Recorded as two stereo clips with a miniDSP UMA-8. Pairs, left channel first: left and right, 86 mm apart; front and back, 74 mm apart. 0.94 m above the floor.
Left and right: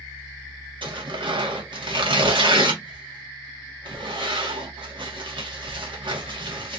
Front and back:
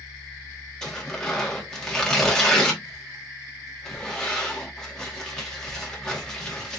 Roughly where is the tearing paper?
Right.